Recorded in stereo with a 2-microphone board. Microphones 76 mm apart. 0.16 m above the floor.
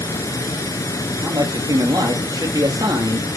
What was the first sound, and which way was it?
Running water, 50° left (ahead or behind).